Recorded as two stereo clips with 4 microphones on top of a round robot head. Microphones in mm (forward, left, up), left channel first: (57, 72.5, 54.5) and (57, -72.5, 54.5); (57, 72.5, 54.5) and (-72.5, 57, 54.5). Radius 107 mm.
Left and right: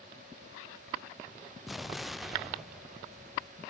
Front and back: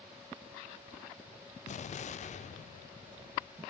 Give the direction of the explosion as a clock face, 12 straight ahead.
12 o'clock.